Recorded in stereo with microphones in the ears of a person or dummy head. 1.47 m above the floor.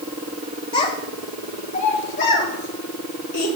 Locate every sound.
0.7 s a child speaking: 30° left (ahead or behind), 1.3 m; by 3.5 s 50° left (ahead or behind), 2.5 m